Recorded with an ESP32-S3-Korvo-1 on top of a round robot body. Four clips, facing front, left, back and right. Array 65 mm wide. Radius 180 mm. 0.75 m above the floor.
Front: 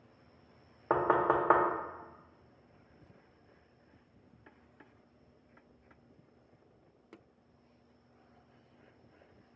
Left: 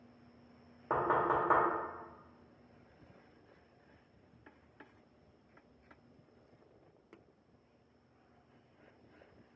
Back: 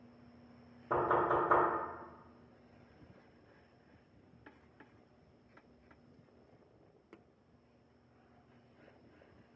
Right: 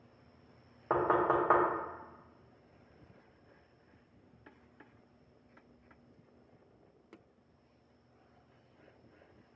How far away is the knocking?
About 0.6 m.